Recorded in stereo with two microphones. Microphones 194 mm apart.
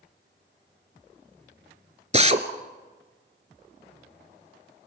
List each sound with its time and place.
2.1 s a drill: 35° right (ahead or behind), 1.1 m